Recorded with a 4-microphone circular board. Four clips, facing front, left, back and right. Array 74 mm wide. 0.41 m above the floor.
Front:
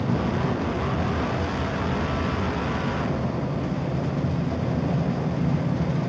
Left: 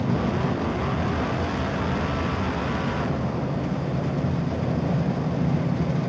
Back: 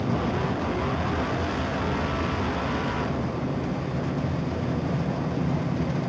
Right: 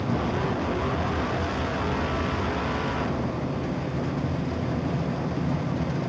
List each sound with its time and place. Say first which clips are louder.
0.0 s an aircraft: left 2 dB, front 1 dB; 60° left